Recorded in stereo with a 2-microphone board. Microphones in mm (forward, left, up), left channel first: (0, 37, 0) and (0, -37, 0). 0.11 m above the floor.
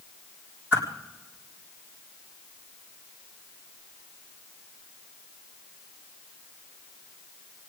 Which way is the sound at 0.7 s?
25° right (ahead or behind).